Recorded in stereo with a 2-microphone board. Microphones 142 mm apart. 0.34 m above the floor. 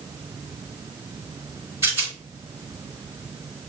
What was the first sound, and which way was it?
A rattle, 15° right (ahead or behind).